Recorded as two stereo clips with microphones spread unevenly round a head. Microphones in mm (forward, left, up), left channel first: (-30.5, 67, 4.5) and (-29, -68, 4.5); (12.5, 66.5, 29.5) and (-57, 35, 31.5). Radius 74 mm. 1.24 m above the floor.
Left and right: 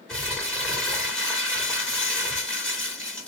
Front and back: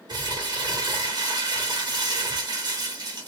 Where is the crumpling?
175° left, 1.5 m.